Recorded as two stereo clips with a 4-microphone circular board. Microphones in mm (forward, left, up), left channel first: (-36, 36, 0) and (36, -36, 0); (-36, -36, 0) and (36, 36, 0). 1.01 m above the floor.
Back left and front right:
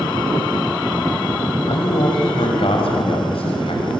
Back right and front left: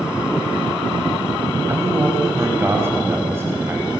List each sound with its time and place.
1.7 s a man speaking: 110° left, 5 m